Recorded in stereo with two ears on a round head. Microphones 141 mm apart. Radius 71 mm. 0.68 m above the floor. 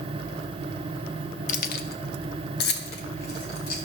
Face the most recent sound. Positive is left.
turn(degrees=70)  # may be behind; listen again after turning